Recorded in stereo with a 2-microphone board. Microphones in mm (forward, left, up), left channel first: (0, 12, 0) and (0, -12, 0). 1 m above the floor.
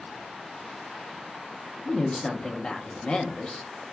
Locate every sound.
1.9 s a woman speaking: 40° left (ahead or behind), 0.8 m